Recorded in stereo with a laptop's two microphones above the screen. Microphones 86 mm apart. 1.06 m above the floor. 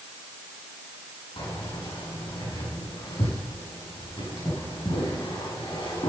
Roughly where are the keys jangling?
Left.